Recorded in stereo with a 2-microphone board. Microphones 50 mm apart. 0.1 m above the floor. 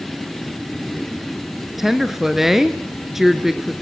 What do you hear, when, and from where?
1.8 s a woman speaking: 5° right (ahead or behind), 1.2 m